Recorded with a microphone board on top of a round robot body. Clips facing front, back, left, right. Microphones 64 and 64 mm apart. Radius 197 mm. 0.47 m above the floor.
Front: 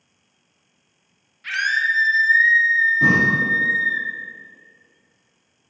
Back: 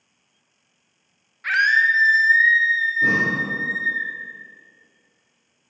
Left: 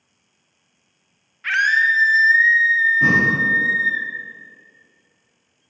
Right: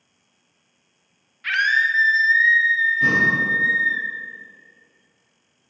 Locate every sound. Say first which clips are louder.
1.4 s a scream: back 4 dB, left 2 dB; 160° left, 1.0 m; by 4.0 s 5° left, 1.3 m
3.0 s breathing: front 1 dB, left 2 dB; 20° left, 0.7 m